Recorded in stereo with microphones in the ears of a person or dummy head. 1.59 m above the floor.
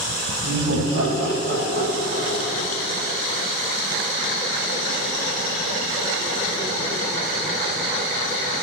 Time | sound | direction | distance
0.4 | laughter | 75° right (ahead or behind) | 2.5 m